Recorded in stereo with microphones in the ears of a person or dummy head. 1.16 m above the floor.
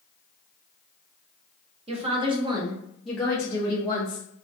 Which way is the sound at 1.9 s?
25° right (ahead or behind).